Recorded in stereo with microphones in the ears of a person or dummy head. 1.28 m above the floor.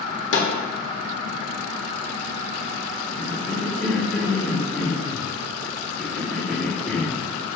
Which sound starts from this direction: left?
A snare drum, at 0.3 s.